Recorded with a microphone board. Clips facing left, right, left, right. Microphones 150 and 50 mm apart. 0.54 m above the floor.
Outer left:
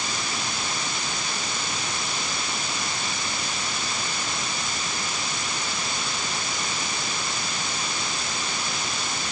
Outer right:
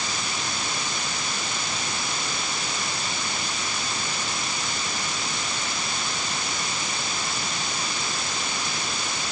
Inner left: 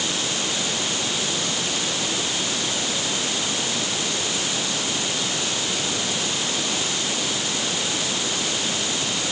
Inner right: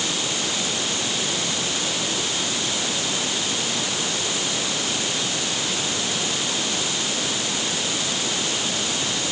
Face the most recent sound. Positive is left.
No sound to turn to.